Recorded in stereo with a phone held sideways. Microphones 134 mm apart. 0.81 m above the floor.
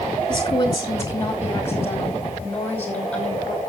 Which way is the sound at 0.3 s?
30° left (ahead or behind).